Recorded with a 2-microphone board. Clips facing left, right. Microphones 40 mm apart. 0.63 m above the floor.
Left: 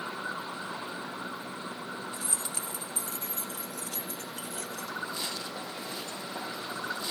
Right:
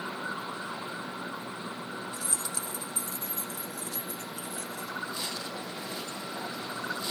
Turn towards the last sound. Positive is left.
turn(degrees=75)  # may be behind; listen again after turning